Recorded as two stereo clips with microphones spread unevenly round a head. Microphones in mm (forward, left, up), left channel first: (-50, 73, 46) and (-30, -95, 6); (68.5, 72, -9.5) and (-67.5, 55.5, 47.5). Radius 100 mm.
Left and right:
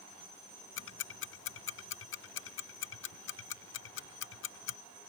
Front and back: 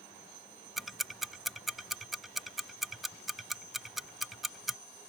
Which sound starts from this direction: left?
Ticking, at 0.8 s.